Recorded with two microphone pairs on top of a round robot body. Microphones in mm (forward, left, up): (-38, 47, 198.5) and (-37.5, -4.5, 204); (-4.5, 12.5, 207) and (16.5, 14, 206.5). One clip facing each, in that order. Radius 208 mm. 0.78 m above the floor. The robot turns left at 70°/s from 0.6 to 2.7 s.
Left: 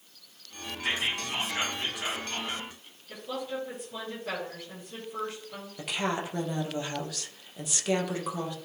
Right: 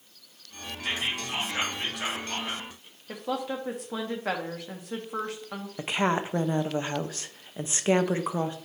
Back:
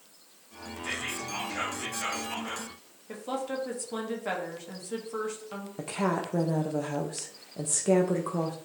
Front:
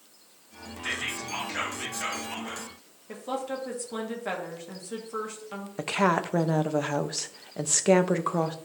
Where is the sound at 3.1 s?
80° right, 2 m.